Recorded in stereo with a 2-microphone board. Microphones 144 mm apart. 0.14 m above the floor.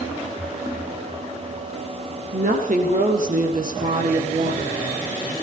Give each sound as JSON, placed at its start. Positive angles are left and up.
{"t": 2.3, "sound": "a woman speaking", "side_deg": -65, "distance_m": 5.0}